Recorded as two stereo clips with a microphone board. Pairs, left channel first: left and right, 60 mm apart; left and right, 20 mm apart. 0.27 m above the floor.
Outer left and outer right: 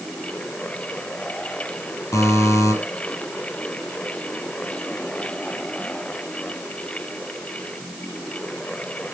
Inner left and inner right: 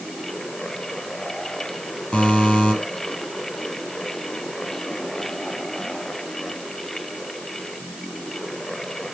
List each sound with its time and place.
2.1 s a buzzer: 55° left (ahead or behind), 4.5 m